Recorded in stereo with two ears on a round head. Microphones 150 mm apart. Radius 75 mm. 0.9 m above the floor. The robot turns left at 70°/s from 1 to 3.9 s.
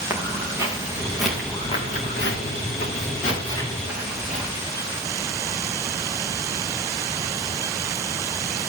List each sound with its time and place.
0.1 s footsteps: 15° right (ahead or behind), 5 m; by 4.5 s 5° right (ahead or behind), 7.5 m